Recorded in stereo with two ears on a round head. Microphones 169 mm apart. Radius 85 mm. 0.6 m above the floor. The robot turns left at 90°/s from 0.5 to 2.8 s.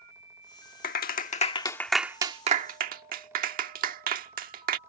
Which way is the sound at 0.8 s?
50° left (ahead or behind).